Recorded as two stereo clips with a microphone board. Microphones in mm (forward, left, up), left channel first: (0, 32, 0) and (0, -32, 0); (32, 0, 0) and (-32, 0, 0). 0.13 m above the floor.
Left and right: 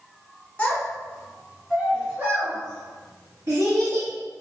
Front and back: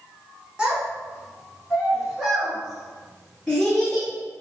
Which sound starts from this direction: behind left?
A child speaking, at 0.6 s.